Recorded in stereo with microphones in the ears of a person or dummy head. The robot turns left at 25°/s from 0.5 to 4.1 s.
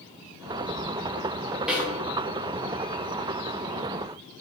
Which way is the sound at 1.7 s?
Centre (ahead or behind).